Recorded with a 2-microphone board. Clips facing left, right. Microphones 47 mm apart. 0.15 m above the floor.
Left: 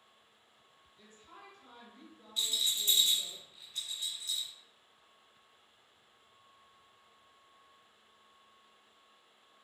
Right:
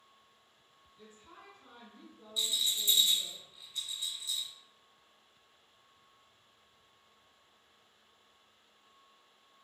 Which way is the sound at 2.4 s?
50° left (ahead or behind).